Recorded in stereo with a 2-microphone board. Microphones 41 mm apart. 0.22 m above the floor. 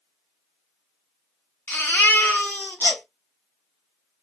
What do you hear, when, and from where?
1.7 s a baby crying: 55° left (ahead or behind), 0.9 m